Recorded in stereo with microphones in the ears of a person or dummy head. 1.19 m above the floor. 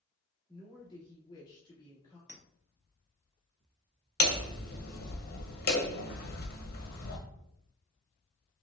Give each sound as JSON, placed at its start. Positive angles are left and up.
{"t": 0.5, "sound": "a woman speaking", "side_deg": 20, "distance_m": 2.0}
{"t": 2.3, "sound": "a clink", "side_deg": -15, "distance_m": 0.8}
{"t": 4.2, "sound": "hammering", "side_deg": 50, "distance_m": 0.7}